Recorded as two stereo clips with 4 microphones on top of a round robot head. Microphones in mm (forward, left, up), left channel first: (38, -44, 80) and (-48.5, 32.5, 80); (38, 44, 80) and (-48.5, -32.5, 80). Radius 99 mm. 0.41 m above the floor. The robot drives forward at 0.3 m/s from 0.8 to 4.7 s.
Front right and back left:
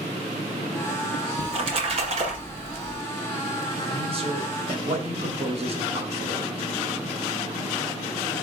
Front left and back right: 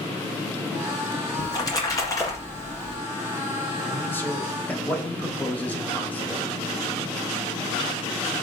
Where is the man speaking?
110° left, 1.8 m; by 6.5 s 120° left, 1.9 m.